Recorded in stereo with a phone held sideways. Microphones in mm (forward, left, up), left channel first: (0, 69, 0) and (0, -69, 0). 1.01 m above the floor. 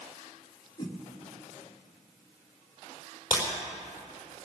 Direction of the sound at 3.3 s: 10° right (ahead or behind).